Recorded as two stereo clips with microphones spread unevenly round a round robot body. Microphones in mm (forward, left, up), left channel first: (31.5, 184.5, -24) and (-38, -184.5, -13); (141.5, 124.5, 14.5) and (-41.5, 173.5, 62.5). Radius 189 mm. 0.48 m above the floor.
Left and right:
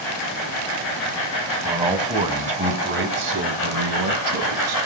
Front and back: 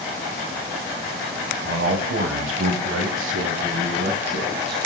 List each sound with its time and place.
1.6 s a man speaking: 175° left, 4.5 m; by 4.8 s 135° right, 4.5 m